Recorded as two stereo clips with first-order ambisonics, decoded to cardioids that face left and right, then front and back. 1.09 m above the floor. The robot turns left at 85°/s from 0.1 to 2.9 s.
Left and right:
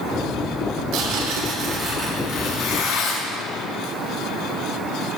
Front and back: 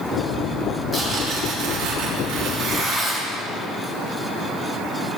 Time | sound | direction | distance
0.9 | tearing paper | 100° right | 3 m